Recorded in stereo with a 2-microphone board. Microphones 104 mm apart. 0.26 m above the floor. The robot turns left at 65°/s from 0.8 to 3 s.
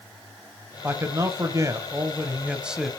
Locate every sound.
0.8 s a man speaking: 45° right, 1.2 m; by 2.9 s straight behind, 1.2 m